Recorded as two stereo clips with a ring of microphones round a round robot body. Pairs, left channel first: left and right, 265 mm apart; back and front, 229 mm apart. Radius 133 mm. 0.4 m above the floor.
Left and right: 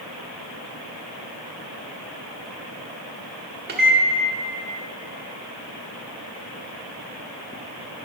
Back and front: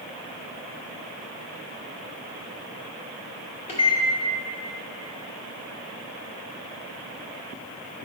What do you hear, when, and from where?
3.7 s a microwave: 125° right, 1.2 m